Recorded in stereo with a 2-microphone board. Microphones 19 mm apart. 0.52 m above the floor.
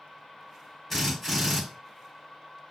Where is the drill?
Centre (ahead or behind), 1.4 m.